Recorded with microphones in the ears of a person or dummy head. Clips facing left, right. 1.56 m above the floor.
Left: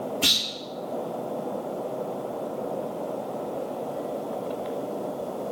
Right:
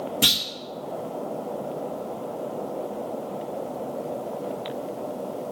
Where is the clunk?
50° right (ahead or behind), 2 m.